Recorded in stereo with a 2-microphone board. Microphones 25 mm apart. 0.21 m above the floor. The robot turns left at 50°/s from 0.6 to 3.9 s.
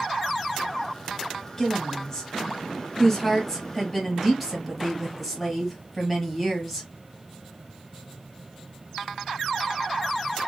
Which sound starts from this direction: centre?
A woman speaking, at 1.6 s.